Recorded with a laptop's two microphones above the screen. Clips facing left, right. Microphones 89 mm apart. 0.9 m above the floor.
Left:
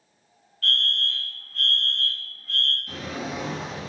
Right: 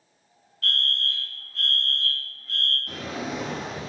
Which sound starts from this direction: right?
A drawer, at 2.9 s.